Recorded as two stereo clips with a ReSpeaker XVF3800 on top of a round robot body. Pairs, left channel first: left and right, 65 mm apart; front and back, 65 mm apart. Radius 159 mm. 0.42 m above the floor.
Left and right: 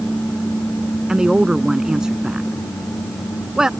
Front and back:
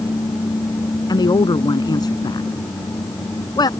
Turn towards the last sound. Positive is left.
turn(degrees=-10)